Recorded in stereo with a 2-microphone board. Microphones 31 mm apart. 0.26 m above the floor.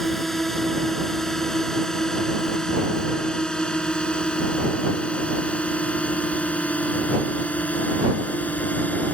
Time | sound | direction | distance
0.0 | a drone | 5° left (ahead or behind) | ?